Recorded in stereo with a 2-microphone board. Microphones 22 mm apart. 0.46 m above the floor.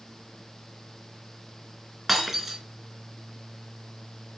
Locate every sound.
2.1 s breaking glass: 10° right (ahead or behind), 3.5 m